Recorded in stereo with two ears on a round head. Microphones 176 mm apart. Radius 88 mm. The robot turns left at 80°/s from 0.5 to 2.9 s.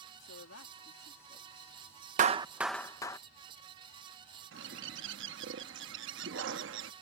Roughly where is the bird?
Right.